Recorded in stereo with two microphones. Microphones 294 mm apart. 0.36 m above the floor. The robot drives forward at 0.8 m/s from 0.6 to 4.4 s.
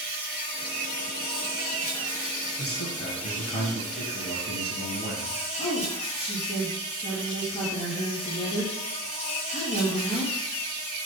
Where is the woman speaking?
20° left (ahead or behind), 5 m.